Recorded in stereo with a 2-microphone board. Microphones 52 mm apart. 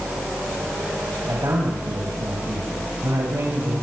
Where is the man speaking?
80° right, 5 m.